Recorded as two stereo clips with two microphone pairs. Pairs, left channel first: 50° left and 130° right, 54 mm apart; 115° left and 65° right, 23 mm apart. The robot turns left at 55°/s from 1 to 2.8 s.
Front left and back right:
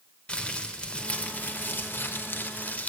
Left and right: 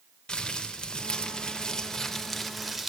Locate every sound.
0.3 s crumpling: 110° left, 0.9 m; by 2.9 s 15° left, 0.9 m